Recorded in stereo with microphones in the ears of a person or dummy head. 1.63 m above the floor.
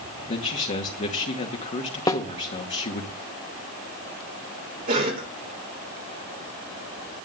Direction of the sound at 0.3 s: 30° left (ahead or behind).